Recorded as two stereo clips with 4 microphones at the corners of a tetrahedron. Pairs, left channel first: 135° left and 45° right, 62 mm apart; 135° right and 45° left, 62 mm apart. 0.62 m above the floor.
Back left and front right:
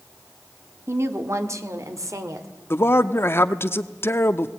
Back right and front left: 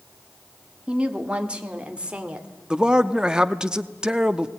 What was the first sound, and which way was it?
A woman speaking, 20° right.